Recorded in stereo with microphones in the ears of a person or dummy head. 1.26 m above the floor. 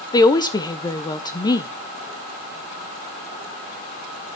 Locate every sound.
0.1 s a woman speaking: 20° left (ahead or behind), 0.7 m